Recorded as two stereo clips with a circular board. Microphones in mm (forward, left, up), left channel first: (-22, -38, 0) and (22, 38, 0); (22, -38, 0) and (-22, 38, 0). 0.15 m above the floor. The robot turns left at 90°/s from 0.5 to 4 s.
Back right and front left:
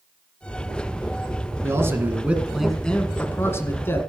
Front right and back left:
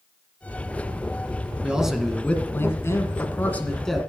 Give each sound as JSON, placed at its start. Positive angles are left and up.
{"t": 1.6, "sound": "a man speaking", "azimuth_deg": 60, "distance_m": 1.7}